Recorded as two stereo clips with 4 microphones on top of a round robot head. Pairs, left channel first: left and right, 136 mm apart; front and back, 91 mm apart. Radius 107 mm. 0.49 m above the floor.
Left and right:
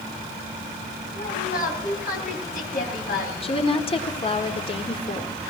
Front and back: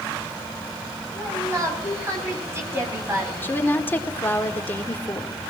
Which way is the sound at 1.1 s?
120° left.